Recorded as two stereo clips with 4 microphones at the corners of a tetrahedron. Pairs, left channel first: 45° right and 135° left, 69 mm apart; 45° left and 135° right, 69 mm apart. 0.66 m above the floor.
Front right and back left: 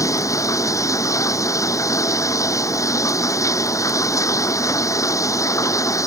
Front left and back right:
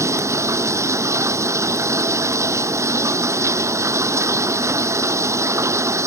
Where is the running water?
90° right.